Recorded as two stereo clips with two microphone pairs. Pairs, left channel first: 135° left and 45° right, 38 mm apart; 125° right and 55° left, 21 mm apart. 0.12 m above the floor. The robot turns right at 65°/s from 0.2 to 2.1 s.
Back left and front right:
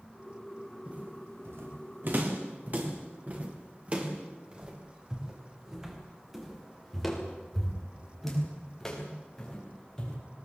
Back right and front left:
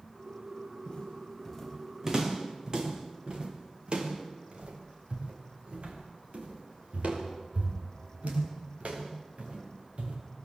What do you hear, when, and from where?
0.9 s footsteps: 100° right, 5 m; by 10.2 s 60° left, 7.5 m